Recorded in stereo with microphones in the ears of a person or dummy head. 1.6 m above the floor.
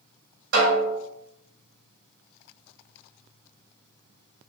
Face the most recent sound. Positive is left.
turn(degrees=-60)  # may be behind; listen again after turning